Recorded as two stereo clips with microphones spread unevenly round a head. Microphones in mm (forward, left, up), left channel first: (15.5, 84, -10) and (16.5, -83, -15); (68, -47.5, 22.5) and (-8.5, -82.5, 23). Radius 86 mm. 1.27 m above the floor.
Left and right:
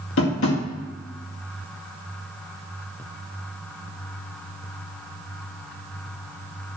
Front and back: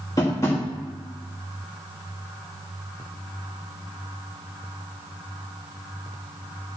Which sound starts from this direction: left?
Tapping, at 0.2 s.